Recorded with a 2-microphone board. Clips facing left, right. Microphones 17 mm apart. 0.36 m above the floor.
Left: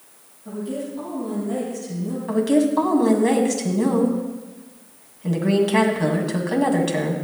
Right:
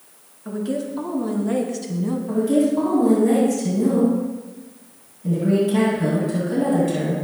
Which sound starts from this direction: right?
A woman speaking, at 0.5 s.